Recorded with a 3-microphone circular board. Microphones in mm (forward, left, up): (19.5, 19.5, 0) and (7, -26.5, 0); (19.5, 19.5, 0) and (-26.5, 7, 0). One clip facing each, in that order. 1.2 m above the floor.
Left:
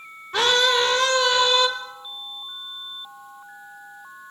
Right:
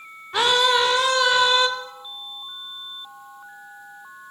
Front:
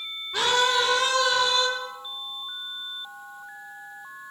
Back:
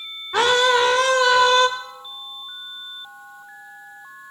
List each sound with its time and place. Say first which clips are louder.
0.3 s a scream: right 1 dB, back 6 dB; 175° left, 4.5 m